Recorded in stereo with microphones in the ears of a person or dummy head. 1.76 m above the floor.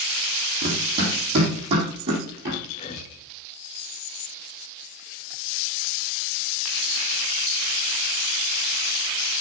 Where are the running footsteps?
25° right (ahead or behind), 3.5 m; by 2.6 s 35° right (ahead or behind), 5 m.